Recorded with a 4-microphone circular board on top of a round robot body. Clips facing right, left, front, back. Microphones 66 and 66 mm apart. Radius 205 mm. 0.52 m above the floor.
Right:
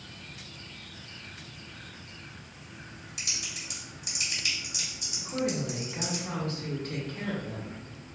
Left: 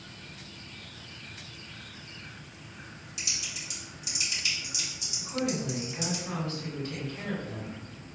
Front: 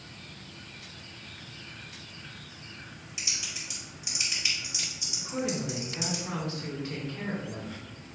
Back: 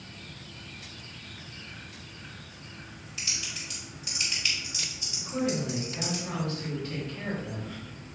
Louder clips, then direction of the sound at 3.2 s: Even, back 1 dB; 70° right.